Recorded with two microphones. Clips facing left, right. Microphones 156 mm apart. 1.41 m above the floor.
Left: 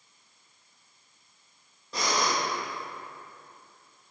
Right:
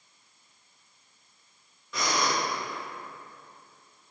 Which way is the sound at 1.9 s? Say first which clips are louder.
Even; 35° left (ahead or behind).